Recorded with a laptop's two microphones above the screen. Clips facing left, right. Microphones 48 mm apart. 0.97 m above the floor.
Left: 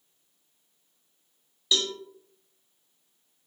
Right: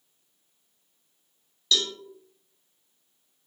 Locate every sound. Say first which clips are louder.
1.7 s a cowbell: right 1 dB; 15° left (ahead or behind), 0.7 m